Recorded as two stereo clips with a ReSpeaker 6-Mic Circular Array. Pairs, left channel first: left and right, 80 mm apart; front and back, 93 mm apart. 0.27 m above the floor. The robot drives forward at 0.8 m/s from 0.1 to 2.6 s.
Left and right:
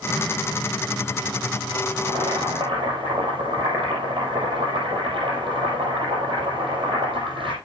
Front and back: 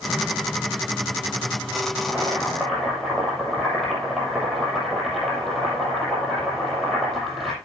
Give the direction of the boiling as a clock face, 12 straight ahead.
3 o'clock.